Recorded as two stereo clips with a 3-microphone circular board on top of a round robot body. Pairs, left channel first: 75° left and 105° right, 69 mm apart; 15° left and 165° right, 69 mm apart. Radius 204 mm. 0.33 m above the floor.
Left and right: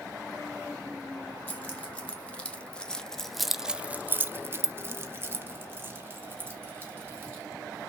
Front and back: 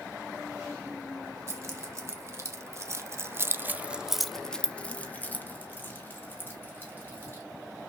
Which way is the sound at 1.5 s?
145° left.